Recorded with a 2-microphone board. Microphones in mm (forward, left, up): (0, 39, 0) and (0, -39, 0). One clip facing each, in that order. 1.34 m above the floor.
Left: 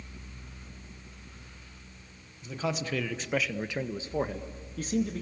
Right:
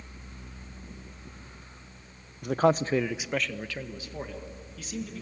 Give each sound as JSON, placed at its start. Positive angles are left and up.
{"t": 2.4, "sound": "a man speaking", "side_deg": -60, "distance_m": 1.0}